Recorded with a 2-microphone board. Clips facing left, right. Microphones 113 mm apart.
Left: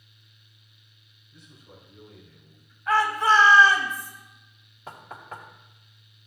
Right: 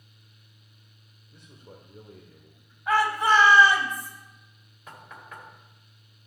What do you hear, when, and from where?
1.3 s a man speaking: 50° right (ahead or behind), 1.6 m; by 2.8 s 30° right (ahead or behind), 1.3 m
2.9 s a shout: 15° right (ahead or behind), 2.5 m
4.9 s knocking: 35° left (ahead or behind), 1.7 m